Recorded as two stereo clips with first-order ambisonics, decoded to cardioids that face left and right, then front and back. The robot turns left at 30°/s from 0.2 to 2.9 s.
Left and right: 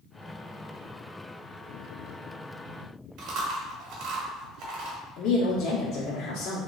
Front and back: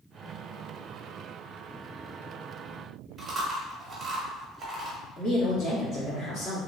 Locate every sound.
3.2 s chewing: 100° right, 1.0 m
5.2 s a woman speaking: 50° left, 1.5 m